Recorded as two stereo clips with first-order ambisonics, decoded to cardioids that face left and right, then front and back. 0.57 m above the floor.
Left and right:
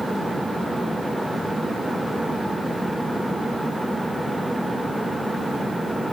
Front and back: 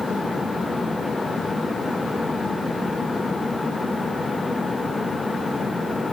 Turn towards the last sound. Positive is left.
No sound to turn to.